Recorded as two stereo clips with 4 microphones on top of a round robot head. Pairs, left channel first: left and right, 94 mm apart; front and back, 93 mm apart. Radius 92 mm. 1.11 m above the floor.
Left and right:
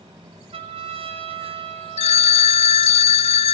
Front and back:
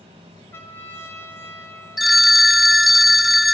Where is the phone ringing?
90° left, 0.5 m.